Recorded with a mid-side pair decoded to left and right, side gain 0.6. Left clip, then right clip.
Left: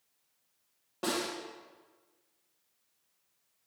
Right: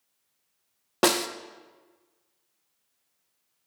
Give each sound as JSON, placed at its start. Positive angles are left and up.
{"t": 1.0, "sound": "a snare drum", "azimuth_deg": -65, "distance_m": 0.7}